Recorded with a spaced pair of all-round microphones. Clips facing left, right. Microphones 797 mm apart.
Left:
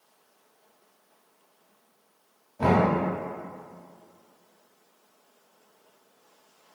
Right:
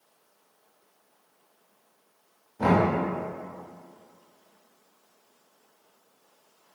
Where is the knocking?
15° left (ahead or behind), 0.7 m.